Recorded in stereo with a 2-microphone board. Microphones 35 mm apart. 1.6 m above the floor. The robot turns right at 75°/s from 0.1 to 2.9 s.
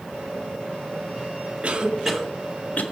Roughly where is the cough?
Right.